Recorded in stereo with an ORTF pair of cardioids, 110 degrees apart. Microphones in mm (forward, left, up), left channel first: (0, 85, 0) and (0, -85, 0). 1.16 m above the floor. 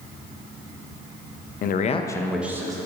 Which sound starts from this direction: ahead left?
A man speaking, at 1.6 s.